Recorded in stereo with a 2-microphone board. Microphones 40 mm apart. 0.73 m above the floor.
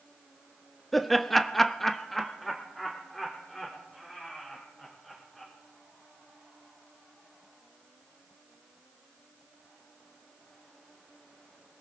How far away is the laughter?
About 1.2 m.